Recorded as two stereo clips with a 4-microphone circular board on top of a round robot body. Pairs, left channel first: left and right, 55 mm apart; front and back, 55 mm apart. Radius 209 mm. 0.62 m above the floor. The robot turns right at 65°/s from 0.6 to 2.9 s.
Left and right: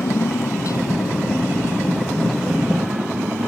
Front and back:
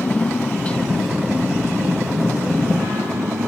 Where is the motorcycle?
65° left; by 3.5 s 145° right.